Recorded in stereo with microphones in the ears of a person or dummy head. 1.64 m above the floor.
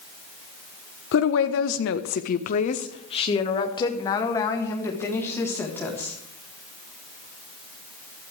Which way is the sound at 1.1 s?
70° left (ahead or behind).